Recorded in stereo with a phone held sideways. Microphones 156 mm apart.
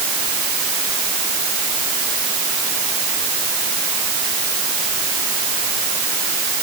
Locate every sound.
Only background noise.